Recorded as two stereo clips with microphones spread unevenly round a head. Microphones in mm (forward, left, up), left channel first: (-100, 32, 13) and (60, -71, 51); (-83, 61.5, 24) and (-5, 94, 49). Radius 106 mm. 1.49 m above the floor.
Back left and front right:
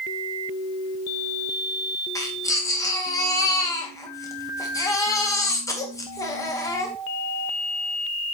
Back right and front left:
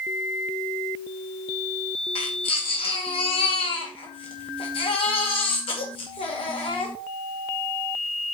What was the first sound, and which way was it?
A baby crying, 140° right.